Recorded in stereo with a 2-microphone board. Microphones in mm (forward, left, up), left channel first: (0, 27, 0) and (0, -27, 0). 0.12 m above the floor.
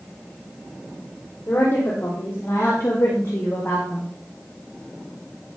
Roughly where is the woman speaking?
Left.